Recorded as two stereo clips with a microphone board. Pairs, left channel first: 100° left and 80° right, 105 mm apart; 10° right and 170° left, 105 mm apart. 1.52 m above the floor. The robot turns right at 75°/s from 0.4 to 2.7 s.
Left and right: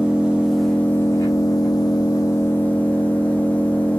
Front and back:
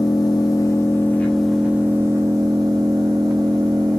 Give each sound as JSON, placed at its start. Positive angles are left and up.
{"t": 0.0, "sound": "an engine running", "azimuth_deg": -5, "distance_m": 1.1}